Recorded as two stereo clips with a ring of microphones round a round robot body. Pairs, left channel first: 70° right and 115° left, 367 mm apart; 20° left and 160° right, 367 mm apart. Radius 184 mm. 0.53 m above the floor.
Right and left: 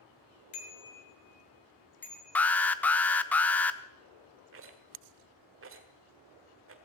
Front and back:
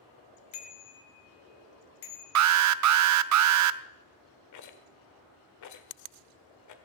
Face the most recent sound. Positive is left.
turn(degrees=60)